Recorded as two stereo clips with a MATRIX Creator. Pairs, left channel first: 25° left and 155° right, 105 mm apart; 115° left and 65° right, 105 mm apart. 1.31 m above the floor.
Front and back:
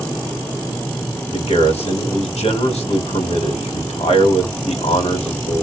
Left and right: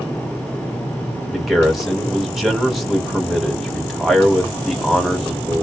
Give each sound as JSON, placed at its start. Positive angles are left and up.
{"t": 1.3, "sound": "a man speaking", "azimuth_deg": 20, "distance_m": 1.8}